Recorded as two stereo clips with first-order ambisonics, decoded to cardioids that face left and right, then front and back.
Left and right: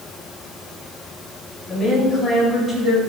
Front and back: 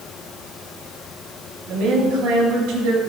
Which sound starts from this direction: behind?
A woman speaking, at 1.7 s.